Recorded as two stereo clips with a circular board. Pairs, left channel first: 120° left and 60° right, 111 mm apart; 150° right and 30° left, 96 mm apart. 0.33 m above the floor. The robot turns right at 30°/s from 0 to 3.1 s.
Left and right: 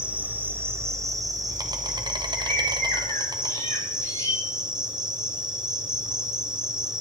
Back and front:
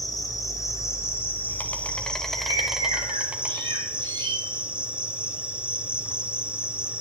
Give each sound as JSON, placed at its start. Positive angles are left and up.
{"t": 0.0, "sound": "an insect", "azimuth_deg": -135, "distance_m": 1.3}
{"t": 2.4, "sound": "a bird", "azimuth_deg": 40, "distance_m": 5.0}